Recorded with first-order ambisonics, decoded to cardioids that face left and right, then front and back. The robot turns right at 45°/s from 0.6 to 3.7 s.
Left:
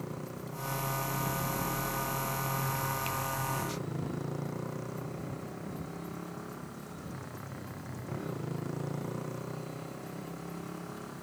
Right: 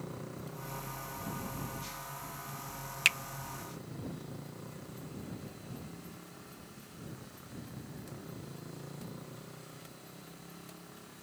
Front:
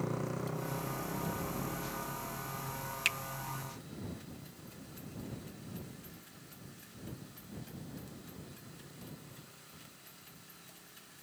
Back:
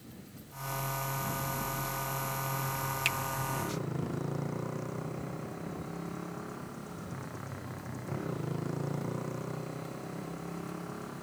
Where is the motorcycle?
10° left; by 11.2 s 150° left.